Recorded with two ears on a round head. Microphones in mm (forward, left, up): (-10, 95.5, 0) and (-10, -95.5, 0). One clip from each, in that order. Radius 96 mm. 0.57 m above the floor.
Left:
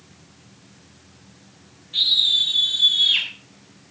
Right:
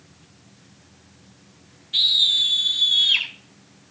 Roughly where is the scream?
Right.